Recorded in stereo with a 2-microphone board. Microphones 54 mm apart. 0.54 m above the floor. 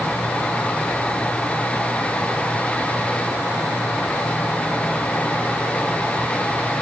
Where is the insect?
20° left (ahead or behind), 3 m.